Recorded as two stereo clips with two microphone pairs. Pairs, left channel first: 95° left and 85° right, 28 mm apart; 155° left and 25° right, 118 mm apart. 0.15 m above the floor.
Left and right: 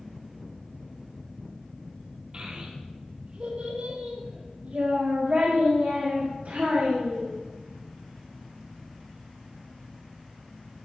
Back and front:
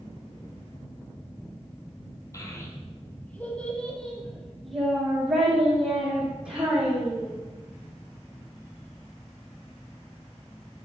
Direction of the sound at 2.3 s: 145° right.